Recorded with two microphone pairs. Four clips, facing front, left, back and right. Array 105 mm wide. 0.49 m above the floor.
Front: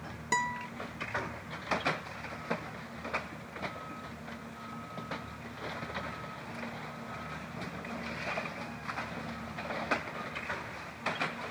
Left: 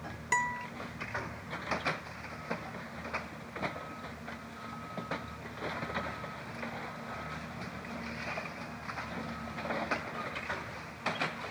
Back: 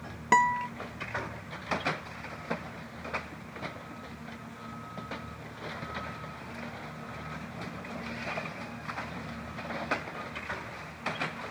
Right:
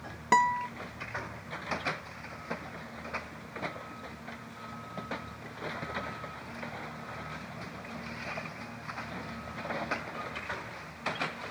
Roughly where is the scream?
No scream in this recording.